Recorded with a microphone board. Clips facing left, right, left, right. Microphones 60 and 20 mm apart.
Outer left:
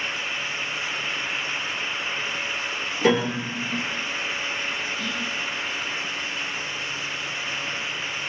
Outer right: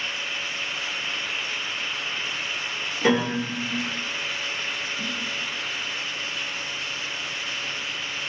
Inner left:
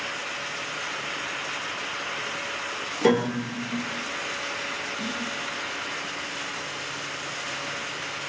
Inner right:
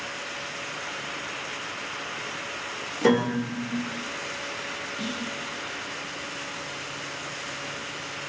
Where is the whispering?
20° right (ahead or behind), 0.6 m.